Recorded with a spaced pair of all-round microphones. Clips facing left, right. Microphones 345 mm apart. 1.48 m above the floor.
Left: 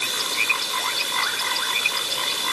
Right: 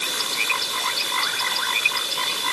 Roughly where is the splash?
I don't hear a splash.